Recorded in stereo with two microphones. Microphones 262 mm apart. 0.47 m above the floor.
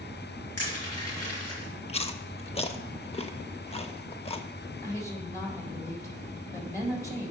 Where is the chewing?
25° left (ahead or behind), 0.6 m.